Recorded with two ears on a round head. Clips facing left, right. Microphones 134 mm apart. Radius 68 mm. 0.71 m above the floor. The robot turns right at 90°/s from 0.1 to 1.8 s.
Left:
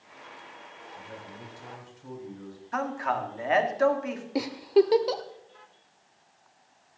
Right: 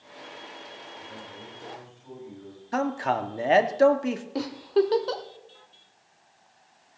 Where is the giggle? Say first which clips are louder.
Left 3 dB; 15° left (ahead or behind), 1.1 m.